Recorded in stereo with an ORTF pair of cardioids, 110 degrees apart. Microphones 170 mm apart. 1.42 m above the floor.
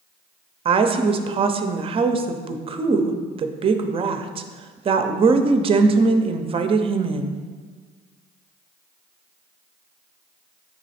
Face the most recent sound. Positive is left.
turn(degrees=-35)